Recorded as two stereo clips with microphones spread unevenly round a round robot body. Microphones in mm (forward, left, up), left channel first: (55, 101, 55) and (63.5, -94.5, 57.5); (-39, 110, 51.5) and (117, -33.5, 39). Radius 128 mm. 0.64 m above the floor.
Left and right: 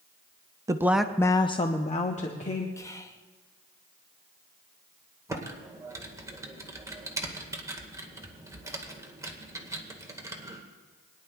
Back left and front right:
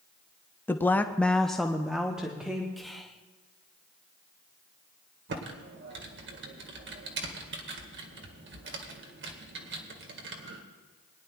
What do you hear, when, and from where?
0.7 s a woman speaking: 145° right, 0.7 m; by 2.7 s 40° left, 1.5 m
2.8 s whispering: 40° left, 1.1 m
5.3 s typing on a keyboard: 15° right, 1.8 m